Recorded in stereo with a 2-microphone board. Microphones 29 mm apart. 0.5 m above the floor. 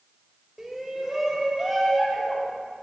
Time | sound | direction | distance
0.6 | a shout | 15° right (ahead or behind) | 1.7 m